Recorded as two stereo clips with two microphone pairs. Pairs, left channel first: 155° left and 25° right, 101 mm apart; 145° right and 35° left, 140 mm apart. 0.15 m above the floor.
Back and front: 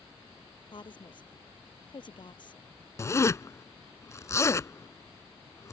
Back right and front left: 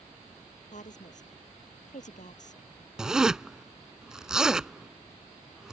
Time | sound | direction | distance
0.7 | a woman speaking | 170° right | ?
3.0 | a zipper | 120° left | ?